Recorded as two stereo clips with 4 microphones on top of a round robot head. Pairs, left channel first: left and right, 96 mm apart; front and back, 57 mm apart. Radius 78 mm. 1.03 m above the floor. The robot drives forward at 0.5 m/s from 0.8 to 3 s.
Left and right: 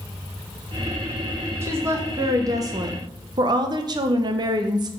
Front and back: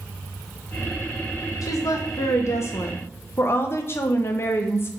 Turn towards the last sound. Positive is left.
turn(degrees=-45)